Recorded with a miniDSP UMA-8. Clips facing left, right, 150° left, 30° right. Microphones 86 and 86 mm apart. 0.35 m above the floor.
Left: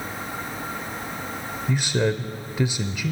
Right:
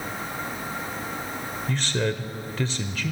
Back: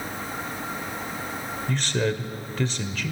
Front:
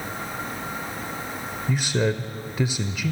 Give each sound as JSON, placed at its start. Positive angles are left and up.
{"t": 1.7, "sound": "a man speaking", "azimuth_deg": 35, "distance_m": 0.8}